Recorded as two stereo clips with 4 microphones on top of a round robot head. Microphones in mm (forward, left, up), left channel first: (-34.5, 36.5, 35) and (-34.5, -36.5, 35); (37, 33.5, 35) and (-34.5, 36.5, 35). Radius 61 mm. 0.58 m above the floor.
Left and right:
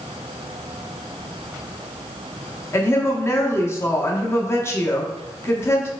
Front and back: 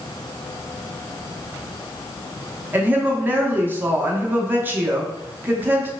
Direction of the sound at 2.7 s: 125° left.